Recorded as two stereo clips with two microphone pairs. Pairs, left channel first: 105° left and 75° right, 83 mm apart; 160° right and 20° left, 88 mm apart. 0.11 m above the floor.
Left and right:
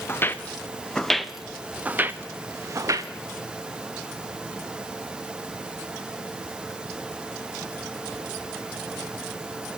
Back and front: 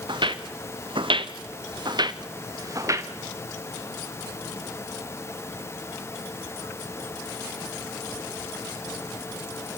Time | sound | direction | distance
0.1 | footsteps | 45° left | 1.7 m